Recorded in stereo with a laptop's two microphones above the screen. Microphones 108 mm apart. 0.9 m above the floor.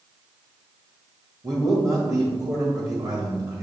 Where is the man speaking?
30° right (ahead or behind), 1.3 m.